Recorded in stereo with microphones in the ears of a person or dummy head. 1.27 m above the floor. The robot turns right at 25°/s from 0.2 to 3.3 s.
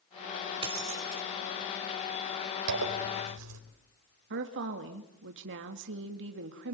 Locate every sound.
0.6 s keys jangling: 20° right (ahead or behind), 3.5 m; by 1.2 s 35° right (ahead or behind), 3.5 m
2.7 s a zipper: 75° right (ahead or behind), 4.5 m; by 3.6 s 90° right, 4.5 m
4.3 s a woman speaking: 60° right (ahead or behind), 1.8 m